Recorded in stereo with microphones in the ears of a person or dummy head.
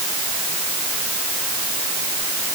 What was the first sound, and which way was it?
Only background noise.